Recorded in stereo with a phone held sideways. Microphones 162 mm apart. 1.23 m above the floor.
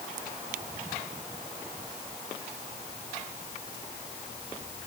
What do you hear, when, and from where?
Only background noise.